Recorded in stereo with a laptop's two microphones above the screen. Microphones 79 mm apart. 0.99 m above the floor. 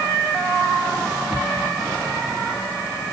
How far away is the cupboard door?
About 1.6 m.